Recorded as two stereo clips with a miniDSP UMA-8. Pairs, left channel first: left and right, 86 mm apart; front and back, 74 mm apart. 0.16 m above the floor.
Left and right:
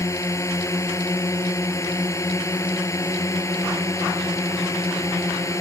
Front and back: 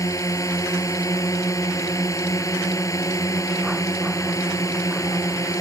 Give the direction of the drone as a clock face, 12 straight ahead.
11 o'clock.